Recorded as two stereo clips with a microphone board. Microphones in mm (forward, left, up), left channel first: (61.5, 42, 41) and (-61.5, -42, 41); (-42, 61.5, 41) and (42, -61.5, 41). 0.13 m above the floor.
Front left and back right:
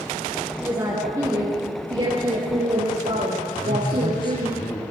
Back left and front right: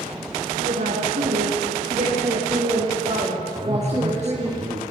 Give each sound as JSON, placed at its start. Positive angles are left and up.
{"t": 0.6, "sound": "a woman speaking", "azimuth_deg": -70, "distance_m": 4.5}
{"t": 3.5, "sound": "a man speaking", "azimuth_deg": -20, "distance_m": 3.0}